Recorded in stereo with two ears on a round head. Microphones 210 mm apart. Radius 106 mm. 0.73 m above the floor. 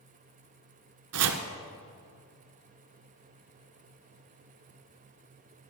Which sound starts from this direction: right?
Chopping, at 1.1 s.